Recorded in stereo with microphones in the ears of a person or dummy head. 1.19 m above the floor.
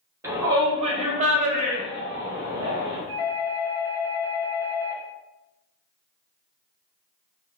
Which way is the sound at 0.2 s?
15° right (ahead or behind).